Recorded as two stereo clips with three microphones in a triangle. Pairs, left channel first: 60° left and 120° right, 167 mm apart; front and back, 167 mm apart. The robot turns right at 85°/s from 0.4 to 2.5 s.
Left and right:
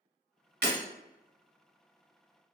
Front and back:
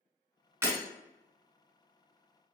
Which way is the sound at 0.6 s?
105° right.